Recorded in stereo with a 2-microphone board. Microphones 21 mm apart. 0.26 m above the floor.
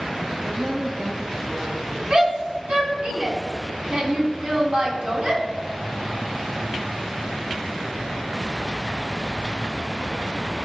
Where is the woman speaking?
30° right (ahead or behind), 1.4 m; by 2.0 s 65° right (ahead or behind), 2 m.